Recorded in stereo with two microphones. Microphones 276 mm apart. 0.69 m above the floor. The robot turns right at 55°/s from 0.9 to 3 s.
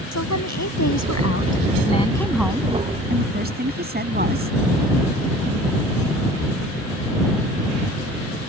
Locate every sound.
0.1 s a woman speaking: 100° left; by 4.5 s 145° right